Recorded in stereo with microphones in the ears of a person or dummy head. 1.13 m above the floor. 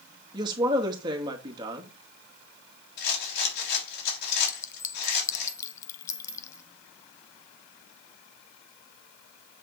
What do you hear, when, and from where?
0.3 s a woman speaking: 20° right (ahead or behind), 2 m
3.0 s a rattle: 60° left (ahead or behind), 3.5 m
4.5 s a clink: 20° left (ahead or behind), 0.7 m